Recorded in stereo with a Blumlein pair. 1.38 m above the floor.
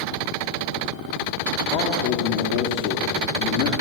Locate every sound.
1.7 s a man speaking: 40° left, 3.5 m